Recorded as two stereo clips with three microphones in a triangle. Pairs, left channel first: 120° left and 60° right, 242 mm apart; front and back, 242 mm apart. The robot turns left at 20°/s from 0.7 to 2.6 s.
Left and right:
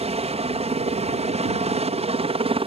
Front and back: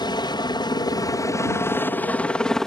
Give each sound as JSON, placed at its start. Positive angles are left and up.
{"t": 0.0, "sound": "a helicopter", "azimuth_deg": -45}